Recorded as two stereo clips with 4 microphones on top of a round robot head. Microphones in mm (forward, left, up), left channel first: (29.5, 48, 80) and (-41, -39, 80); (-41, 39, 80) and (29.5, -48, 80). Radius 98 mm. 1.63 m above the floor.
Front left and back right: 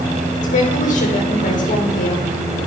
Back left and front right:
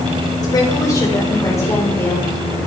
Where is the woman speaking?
70° left, 7.5 m; by 2.2 s 60° left, 7 m.